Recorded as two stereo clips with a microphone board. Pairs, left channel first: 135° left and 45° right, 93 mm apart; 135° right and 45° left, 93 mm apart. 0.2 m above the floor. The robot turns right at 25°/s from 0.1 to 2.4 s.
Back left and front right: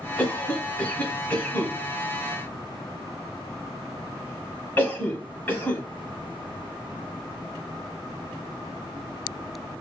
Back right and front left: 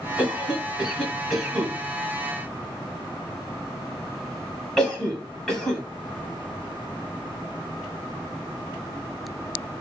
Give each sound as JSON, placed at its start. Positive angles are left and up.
{"t": 0.2, "sound": "a cough", "azimuth_deg": 95, "distance_m": 1.4}